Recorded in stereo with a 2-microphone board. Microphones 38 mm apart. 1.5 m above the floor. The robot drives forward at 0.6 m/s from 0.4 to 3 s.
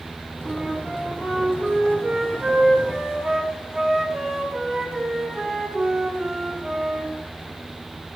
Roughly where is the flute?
Centre.